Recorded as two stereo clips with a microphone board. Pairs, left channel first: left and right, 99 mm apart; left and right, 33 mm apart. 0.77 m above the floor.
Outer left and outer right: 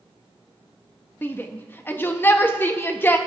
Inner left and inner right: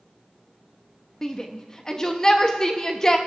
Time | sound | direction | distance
1.2 | a shout | 20° left (ahead or behind) | 0.6 m